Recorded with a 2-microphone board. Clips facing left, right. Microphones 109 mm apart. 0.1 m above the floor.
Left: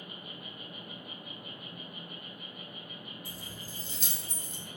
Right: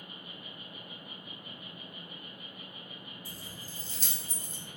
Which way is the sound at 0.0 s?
70° left (ahead or behind).